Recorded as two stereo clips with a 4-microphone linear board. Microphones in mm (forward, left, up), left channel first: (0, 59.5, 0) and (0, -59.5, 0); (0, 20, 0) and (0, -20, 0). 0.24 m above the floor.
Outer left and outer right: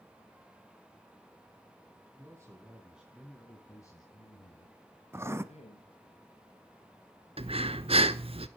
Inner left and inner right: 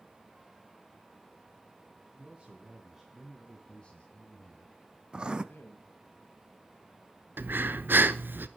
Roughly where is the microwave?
No microwave in this recording.